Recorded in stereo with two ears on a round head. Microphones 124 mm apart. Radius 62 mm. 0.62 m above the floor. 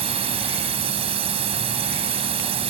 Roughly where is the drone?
Right.